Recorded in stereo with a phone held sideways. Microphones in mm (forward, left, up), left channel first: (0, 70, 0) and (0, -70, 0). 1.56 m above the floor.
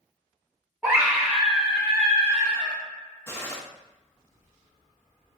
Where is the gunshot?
20° left (ahead or behind), 0.8 m.